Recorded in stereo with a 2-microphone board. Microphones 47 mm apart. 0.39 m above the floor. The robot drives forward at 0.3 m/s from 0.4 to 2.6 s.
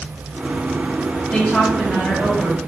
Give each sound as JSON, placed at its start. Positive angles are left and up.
{"t": 1.3, "sound": "a woman speaking", "side_deg": 15, "distance_m": 1.4}